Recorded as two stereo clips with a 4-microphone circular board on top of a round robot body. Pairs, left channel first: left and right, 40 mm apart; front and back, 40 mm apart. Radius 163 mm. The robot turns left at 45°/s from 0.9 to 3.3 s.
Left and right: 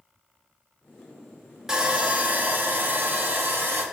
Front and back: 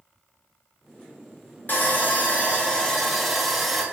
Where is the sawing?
15° right, 0.8 m; by 3.8 s 90° right, 0.8 m.